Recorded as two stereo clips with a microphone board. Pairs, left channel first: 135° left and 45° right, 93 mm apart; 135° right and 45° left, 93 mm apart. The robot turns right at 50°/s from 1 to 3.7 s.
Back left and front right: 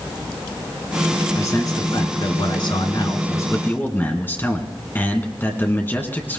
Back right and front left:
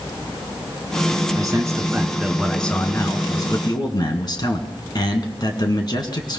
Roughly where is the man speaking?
Left.